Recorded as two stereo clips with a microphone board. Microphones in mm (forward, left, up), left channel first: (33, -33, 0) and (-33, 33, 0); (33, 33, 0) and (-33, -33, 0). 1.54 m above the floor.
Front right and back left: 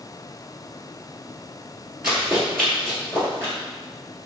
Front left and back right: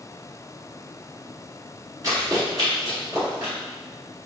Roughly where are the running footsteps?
Behind right.